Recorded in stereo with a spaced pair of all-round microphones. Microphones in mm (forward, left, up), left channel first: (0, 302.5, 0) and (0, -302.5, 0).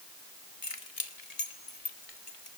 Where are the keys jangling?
55° left (ahead or behind), 2.0 m.